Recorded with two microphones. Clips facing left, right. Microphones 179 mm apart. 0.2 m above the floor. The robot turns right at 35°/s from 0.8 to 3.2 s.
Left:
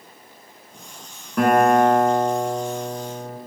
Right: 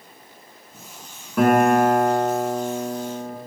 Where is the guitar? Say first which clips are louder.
Even; straight behind, 1.6 m; by 3.4 s 115° right, 1.6 m.